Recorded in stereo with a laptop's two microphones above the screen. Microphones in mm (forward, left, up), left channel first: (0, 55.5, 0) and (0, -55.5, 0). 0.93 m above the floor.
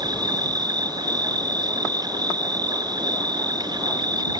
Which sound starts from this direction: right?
An insect, at 0.0 s.